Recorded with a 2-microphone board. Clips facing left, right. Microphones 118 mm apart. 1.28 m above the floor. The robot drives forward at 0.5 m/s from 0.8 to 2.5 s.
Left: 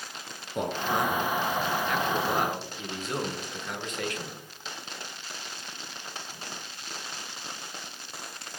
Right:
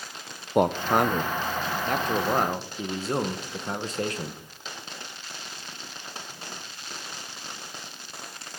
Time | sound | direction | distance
0.6 | a man speaking | 65° right (ahead or behind) | 0.7 m